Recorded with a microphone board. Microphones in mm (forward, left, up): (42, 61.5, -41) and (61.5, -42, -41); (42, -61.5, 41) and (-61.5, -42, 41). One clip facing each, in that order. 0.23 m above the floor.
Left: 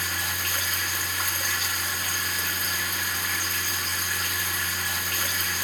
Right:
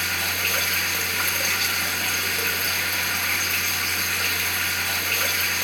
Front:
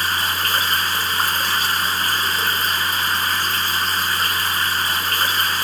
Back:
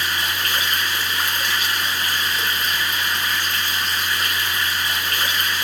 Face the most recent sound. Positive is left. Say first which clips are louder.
# right 3 dB, front 2 dB
turn(degrees=-60)